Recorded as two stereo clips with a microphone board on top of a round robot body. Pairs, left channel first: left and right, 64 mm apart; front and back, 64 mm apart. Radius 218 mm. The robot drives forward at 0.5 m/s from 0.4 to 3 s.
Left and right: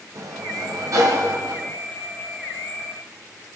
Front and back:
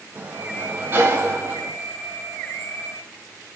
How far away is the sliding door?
About 3.5 m.